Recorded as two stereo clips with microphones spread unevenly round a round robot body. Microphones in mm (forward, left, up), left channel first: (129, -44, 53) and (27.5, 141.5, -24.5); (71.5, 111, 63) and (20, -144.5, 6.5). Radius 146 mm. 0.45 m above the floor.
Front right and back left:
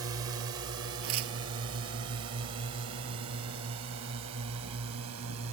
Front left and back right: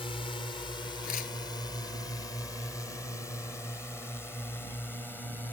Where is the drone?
155° left; by 5.5 s 170° left.